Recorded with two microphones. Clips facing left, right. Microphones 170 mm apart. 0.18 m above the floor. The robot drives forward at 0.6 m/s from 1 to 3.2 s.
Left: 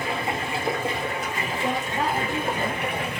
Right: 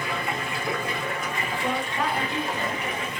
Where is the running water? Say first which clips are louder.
Left 2 dB; 30° left (ahead or behind), 2 m; by 3.2 s 65° left (ahead or behind), 1.1 m.